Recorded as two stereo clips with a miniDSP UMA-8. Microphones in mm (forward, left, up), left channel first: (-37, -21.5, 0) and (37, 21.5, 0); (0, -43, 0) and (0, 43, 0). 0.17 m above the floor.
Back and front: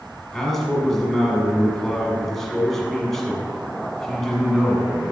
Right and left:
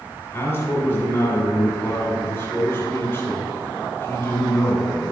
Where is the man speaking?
70° right, 1.8 m.